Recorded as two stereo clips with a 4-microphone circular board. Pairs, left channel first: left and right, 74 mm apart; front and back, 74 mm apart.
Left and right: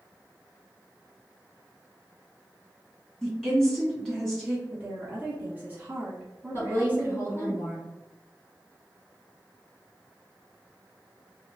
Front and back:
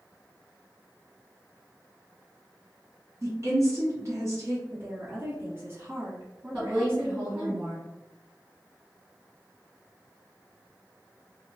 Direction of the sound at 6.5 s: 105° left.